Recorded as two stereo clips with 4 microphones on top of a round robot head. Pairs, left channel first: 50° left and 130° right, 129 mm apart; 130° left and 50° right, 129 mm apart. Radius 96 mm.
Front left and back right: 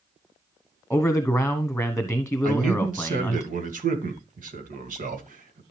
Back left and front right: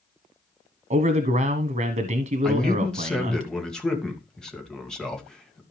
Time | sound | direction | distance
0.9 | a man speaking | 35° right | 1.1 m
2.4 | a man speaking | 145° right | 2 m